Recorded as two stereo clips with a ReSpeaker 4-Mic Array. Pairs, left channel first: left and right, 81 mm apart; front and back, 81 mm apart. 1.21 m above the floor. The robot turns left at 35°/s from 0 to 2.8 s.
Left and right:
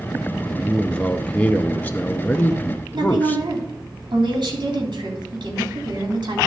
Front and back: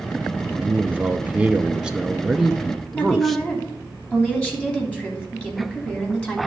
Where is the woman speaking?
75° right, 3 m.